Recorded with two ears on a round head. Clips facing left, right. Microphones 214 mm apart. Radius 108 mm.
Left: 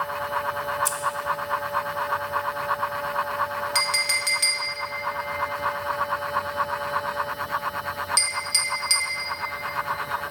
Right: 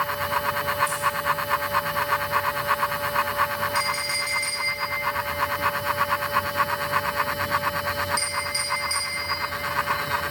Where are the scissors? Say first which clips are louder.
Right 1 dB; 60° left (ahead or behind), 0.8 m.